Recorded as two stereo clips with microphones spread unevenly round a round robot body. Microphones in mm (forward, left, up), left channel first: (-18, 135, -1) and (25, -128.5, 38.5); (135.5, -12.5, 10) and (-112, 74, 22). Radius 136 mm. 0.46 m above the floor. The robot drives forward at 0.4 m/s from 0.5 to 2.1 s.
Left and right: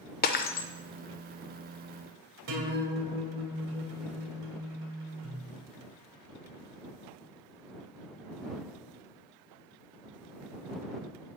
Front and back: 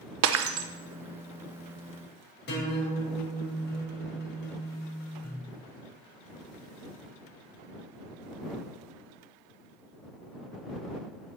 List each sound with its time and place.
0.2 s breaking glass: 140° left, 0.6 m; by 0.7 s 145° left, 0.7 m
2.5 s a guitar: 65° right, 2 m